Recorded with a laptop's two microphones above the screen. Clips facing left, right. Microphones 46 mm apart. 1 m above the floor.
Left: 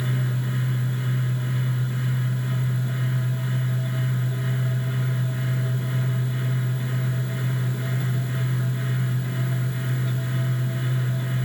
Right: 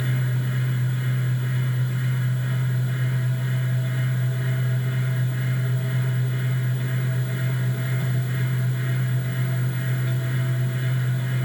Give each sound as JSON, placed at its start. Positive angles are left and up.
{"t": 0.0, "sound": "a fan", "side_deg": -15, "distance_m": 3.5}